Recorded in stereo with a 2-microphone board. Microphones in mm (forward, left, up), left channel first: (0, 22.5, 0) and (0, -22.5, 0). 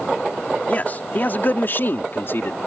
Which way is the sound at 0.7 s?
35° left (ahead or behind).